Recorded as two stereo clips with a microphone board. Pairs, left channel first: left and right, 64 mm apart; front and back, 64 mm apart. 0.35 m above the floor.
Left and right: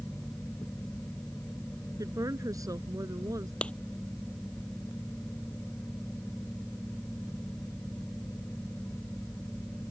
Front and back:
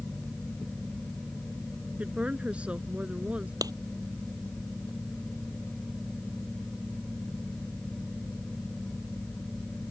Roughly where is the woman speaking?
Right.